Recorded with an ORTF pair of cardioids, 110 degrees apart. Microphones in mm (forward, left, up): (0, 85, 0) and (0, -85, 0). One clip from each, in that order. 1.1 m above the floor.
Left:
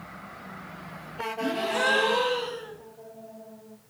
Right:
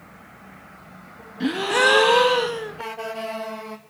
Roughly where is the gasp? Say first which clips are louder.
Right 7 dB; ahead right.